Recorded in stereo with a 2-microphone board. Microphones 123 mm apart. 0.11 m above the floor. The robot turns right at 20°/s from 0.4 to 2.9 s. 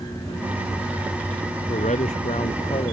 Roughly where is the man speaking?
Left.